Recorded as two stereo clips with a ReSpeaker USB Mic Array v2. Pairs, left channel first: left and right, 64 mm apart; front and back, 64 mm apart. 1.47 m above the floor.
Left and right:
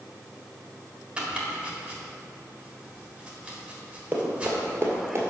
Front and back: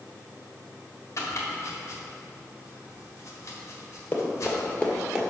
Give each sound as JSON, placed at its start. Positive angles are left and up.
{"t": 1.2, "sound": "chopping", "azimuth_deg": -20, "distance_m": 1.5}
{"t": 4.1, "sound": "running footsteps", "azimuth_deg": -45, "distance_m": 1.8}